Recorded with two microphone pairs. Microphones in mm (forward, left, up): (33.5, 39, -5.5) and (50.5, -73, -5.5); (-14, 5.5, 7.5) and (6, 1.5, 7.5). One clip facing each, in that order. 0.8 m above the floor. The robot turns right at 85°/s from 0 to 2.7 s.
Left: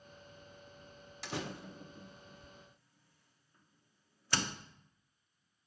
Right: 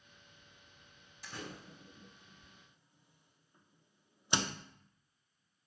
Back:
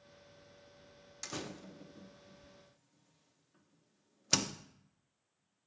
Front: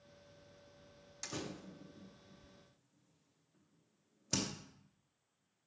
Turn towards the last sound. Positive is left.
turn(degrees=-150)